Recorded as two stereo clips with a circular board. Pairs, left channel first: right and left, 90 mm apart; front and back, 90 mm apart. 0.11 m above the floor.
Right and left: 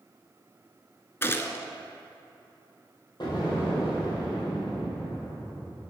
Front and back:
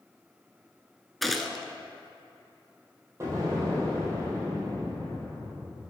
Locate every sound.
1.2 s a gunshot: 85° right, 0.5 m
3.2 s an explosion: 125° right, 2.5 m